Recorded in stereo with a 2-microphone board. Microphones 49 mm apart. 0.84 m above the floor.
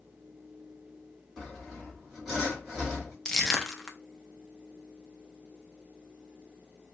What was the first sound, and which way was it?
Sawing, 5° right (ahead or behind).